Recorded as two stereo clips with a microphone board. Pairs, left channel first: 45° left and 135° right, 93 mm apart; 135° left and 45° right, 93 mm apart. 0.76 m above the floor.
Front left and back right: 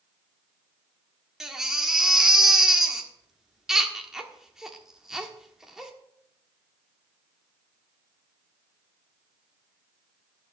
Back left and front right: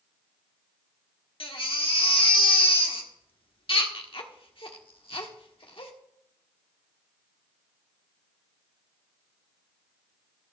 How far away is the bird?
No bird in this recording.